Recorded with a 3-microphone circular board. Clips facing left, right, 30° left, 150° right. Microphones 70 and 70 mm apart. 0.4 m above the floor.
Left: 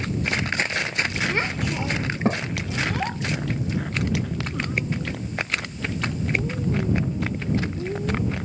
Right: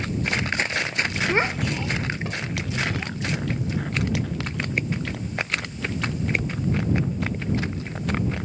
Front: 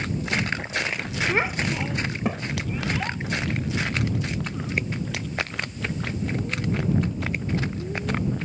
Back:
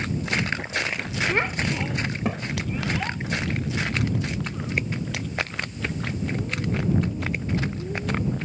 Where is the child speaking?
55° right; by 8.4 s 120° left.